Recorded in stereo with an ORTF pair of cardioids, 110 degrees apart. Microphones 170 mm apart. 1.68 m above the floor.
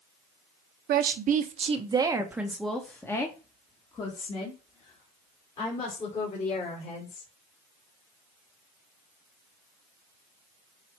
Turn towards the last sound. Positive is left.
turn(degrees=45)